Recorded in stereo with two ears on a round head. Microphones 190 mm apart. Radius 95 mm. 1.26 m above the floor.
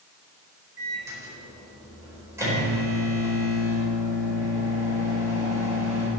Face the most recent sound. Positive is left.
turn(degrees=-15)  # may be behind; listen again after turning